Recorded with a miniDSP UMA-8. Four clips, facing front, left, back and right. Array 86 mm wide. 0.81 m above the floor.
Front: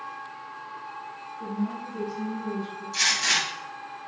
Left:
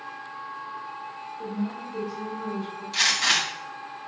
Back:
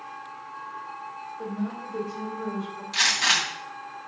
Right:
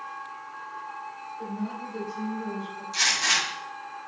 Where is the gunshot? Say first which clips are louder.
Left 1 dB, back 2 dB; 155° left, 3 m.